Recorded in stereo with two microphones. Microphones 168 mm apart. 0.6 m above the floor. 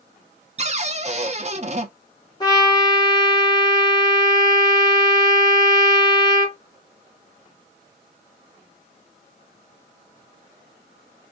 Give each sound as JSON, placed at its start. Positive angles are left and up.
{"t": 0.6, "sound": "a cupboard door", "side_deg": -40, "distance_m": 0.5}
{"t": 2.4, "sound": "a trumpet", "side_deg": 25, "distance_m": 1.2}